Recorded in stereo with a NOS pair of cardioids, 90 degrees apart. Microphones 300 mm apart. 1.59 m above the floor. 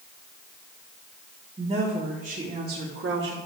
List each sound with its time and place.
1.6 s a woman speaking: 20° right, 3.5 m; by 3.4 s 40° right, 4 m